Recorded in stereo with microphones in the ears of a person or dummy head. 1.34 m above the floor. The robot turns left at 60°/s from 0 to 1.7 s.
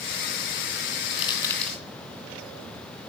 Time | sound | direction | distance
1.1 | crushing | 30° left (ahead or behind) | 3 m